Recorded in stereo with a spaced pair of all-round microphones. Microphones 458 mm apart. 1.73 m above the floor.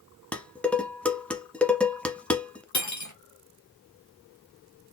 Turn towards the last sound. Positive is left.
turn(degrees=35)  # may be behind; listen again after turning